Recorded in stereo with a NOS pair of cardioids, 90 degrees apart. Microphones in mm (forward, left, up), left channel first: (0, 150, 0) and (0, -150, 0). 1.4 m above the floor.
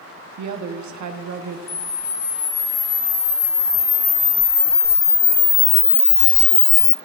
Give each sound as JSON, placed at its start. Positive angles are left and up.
{"t": 0.4, "sound": "a woman speaking", "azimuth_deg": -70, "distance_m": 1.2}
{"t": 1.7, "sound": "a camera shutter", "azimuth_deg": 35, "distance_m": 1.2}